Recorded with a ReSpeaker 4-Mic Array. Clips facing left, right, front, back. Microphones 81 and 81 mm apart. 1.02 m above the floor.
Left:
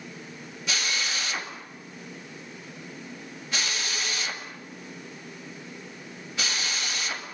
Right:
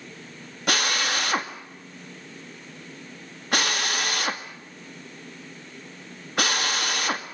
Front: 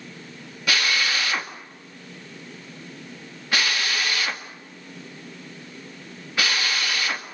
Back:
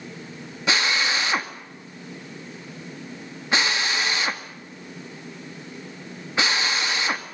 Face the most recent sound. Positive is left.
turn(degrees=-115)